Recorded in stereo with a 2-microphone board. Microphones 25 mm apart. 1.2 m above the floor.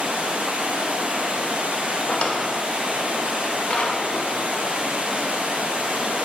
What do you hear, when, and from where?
0.0 s running water: 60° right (ahead or behind), 0.8 m
2.1 s a drawer: 50° left (ahead or behind), 0.7 m